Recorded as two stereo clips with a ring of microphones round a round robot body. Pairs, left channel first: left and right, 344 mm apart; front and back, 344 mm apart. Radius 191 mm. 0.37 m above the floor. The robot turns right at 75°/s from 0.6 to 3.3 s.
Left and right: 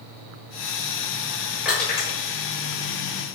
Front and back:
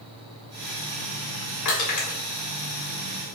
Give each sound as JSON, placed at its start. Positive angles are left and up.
{"t": 1.6, "sound": "crushing", "azimuth_deg": -5, "distance_m": 1.6}